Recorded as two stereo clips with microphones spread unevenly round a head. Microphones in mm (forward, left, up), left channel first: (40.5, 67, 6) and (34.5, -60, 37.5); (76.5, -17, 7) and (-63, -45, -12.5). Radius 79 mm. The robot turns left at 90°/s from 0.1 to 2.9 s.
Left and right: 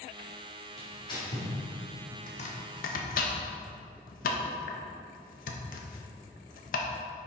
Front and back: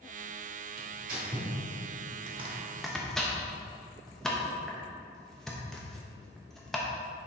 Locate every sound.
0.8 s tearing paper: 175° right, 1.6 m; by 1.5 s 120° left, 1.6 m
2.3 s chopping: 145° left, 0.8 m; by 6.9 s 90° left, 0.8 m